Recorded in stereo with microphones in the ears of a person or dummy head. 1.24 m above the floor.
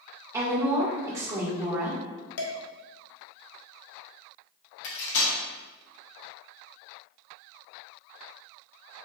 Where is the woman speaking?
15° right (ahead or behind), 1.6 m.